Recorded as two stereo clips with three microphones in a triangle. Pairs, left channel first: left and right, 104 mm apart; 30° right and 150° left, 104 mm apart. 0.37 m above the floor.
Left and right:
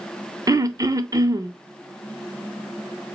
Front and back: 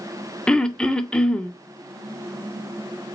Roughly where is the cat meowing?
I don't hear a cat meowing.